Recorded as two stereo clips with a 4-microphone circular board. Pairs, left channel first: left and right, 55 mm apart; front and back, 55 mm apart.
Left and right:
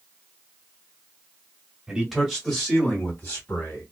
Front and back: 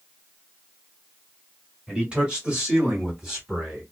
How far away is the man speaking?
About 1.5 m.